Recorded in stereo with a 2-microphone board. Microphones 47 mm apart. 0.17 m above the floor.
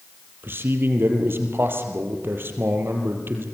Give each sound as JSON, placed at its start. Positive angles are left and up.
{"t": 0.4, "sound": "a man speaking", "side_deg": -50, "distance_m": 4.5}